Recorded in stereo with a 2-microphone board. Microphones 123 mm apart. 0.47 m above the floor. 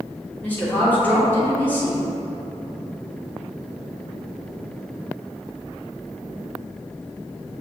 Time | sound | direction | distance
0.4 | a woman speaking | 15° left (ahead or behind) | 1.1 m